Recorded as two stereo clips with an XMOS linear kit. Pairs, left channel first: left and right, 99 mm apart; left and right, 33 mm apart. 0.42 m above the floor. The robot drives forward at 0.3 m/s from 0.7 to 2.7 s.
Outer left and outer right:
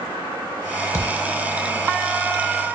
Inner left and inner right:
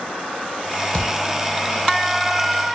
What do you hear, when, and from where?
0.9 s a thud: 30° left (ahead or behind), 0.6 m; by 1.2 s 25° left (ahead or behind), 0.7 m